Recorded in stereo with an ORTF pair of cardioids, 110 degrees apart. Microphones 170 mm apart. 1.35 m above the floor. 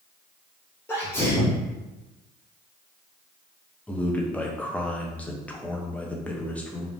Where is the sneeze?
15° left, 0.7 m.